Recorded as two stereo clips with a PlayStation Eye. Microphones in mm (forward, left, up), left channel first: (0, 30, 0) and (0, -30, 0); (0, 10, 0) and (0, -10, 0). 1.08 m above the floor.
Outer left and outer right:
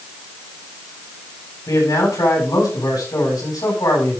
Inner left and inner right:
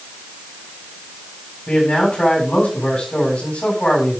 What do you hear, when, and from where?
1.7 s a man speaking: 85° left, 8.5 m